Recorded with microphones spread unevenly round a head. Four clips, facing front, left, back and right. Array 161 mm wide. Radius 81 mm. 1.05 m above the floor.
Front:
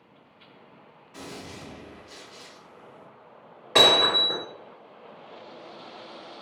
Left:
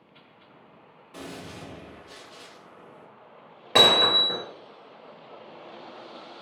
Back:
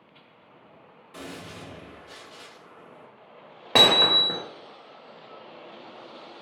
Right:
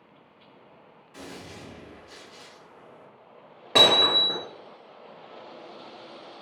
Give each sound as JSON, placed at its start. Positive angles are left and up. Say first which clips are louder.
{"t": 1.1, "sound": "a gunshot", "louder": "left 2 dB, back 1 dB", "azimuth_deg": 130, "distance_m": 1.5}
{"t": 3.8, "sound": "hammering", "louder": "left 1 dB, front 1 dB", "azimuth_deg": 180, "distance_m": 1.1}